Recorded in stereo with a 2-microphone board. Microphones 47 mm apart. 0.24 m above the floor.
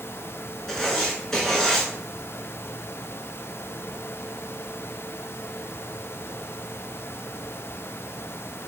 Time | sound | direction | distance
0.7 | writing | 10° left (ahead or behind) | 1.3 m